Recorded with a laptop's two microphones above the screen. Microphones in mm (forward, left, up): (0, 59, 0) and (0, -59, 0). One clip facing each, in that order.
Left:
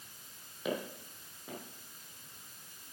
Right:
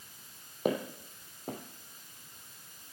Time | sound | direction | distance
0.7 | footsteps | 45° right (ahead or behind) | 2 m